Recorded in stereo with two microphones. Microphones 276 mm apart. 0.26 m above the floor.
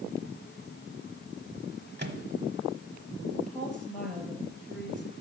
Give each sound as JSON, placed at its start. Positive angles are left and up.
{"t": 2.0, "sound": "a microwave", "side_deg": -35, "distance_m": 1.0}
{"t": 3.5, "sound": "a woman speaking", "side_deg": 5, "distance_m": 5.5}